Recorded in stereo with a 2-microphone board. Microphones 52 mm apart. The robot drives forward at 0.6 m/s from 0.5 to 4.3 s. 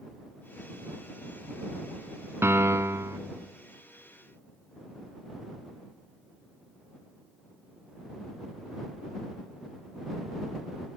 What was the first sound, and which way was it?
A piano, 55° right (ahead or behind).